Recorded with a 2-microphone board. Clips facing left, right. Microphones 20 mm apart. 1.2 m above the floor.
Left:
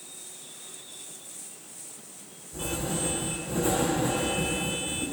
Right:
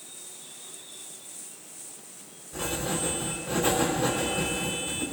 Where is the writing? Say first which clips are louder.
Right 1 dB; 55° right (ahead or behind), 3.5 m.